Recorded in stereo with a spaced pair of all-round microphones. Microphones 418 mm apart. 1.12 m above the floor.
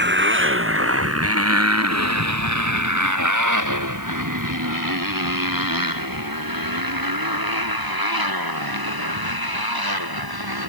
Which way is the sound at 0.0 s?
25° right (ahead or behind).